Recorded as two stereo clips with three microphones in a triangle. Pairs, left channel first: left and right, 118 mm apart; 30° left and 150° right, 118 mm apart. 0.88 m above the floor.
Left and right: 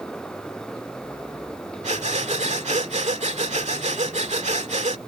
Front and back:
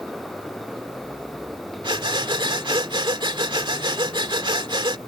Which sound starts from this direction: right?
Breathing, at 1.8 s.